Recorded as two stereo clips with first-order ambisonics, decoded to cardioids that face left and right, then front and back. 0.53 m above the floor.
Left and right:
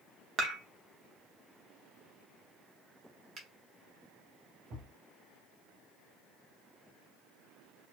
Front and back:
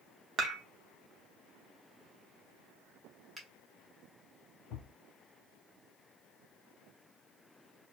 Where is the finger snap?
120° right, 0.7 m.